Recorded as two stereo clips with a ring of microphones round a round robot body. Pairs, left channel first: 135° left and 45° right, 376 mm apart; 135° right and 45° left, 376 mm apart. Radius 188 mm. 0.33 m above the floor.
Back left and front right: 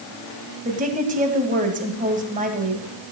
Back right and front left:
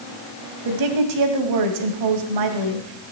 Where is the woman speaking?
20° left, 2.5 m.